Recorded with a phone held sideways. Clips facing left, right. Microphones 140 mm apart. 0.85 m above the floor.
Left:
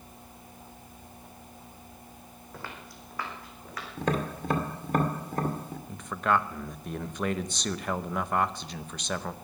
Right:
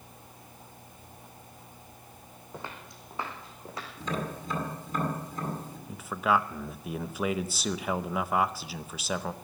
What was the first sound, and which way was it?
Footsteps, 20° right (ahead or behind).